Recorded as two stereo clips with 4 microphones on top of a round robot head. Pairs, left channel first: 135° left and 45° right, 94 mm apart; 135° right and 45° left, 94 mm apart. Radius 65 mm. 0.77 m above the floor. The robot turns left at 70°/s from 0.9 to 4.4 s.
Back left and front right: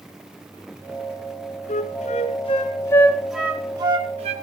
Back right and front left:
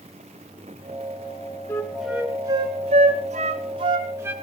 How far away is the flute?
About 1.7 m.